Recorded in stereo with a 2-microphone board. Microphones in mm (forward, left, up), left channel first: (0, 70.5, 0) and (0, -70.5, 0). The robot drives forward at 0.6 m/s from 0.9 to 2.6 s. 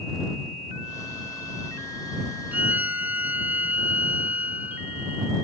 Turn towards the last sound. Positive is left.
turn(degrees=-15)  # may be behind; listen again after turning